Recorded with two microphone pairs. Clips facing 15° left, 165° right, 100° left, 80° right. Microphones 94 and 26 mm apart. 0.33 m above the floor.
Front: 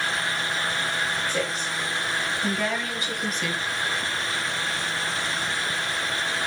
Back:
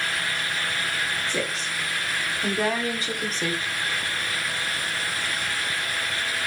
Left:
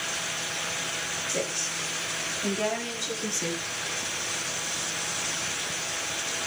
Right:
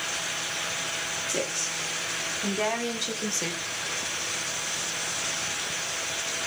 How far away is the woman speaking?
About 3.5 m.